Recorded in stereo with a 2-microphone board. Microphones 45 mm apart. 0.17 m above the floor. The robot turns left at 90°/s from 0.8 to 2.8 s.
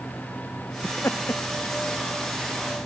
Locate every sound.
0.8 s laughter: 45° left (ahead or behind); by 1.4 s 80° left